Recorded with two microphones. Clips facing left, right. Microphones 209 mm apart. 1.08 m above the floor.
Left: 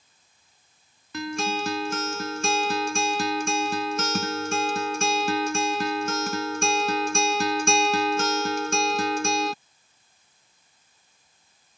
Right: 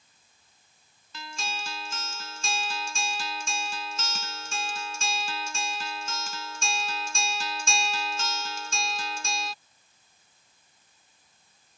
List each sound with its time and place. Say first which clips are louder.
1.1 s a guitar: left 12 dB; 65° left (ahead or behind)